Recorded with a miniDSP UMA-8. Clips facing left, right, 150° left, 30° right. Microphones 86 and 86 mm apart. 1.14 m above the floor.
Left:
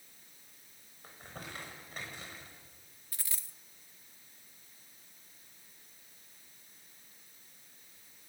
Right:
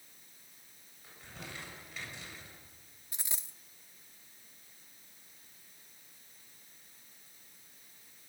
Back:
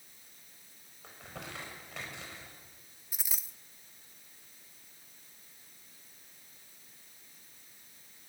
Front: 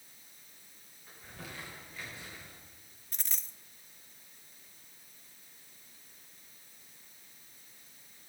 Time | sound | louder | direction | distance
1.0 | crumpling | left 2 dB, back 3 dB | 135° left | 7 m
3.1 | a dropped coin | right 2 dB, back 1 dB | 135° right | 0.6 m